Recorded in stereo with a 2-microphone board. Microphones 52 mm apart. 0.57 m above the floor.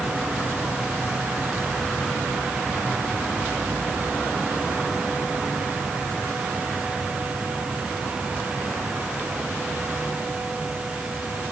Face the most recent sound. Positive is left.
No sound to turn to.